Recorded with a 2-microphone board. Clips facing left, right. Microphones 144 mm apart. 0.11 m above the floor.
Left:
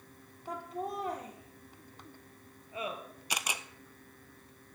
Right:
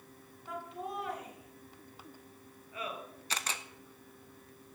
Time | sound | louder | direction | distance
0.5 | laughter | left 3 dB | 40° left (ahead or behind) | 3.5 m
3.3 | a camera shutter | left 2 dB | 15° left (ahead or behind) | 0.6 m